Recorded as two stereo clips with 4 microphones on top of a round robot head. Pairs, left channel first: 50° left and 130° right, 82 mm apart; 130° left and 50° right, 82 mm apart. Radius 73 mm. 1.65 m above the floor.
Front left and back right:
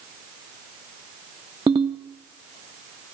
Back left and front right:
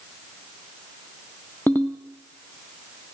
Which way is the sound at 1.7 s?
165° right.